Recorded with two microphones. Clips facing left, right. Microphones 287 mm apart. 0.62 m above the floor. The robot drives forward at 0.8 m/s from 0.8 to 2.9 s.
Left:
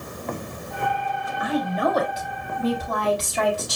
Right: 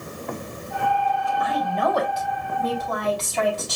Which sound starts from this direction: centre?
A woman speaking, at 1.4 s.